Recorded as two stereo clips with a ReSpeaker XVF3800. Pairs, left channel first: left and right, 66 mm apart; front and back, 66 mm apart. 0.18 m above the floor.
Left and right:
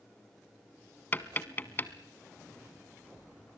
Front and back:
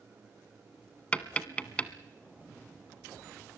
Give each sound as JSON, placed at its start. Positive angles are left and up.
{"t": 1.1, "sound": "tapping", "azimuth_deg": 55, "distance_m": 1.1}